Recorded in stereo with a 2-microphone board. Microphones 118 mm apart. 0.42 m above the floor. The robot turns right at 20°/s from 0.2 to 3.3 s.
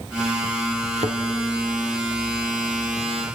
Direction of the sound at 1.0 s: 65° right (ahead or behind).